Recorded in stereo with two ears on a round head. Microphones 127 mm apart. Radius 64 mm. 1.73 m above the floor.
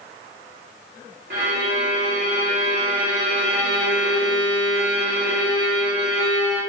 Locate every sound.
1.3 s a violin: 65° right (ahead or behind), 3.5 m